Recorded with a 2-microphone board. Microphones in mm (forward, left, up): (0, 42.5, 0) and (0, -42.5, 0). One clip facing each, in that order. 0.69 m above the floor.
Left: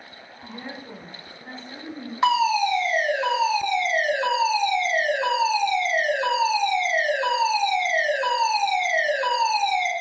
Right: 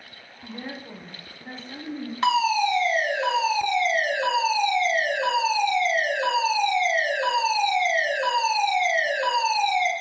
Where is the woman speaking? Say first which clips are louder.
Right 1 dB; 5° right (ahead or behind), 0.8 m.